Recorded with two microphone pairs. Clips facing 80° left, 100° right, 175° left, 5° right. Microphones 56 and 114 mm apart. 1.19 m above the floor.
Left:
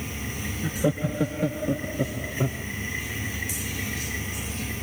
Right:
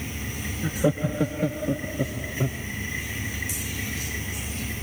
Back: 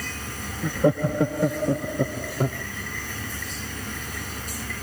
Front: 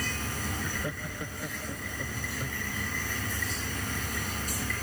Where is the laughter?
175° right; by 2.6 s 160° left.